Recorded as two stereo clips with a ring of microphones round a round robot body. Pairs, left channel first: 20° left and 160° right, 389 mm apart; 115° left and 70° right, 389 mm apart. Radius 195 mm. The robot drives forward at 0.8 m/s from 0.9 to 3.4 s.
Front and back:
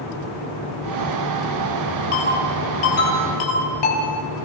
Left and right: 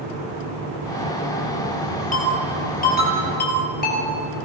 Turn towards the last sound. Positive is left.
turn(degrees=45)